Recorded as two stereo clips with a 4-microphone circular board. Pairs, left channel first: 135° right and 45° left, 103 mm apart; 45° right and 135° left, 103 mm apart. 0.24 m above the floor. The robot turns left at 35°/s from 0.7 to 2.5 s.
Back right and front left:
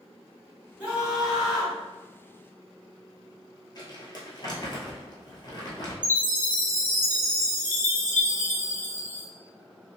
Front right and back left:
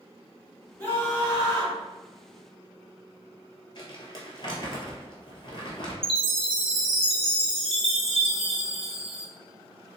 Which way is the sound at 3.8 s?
85° right.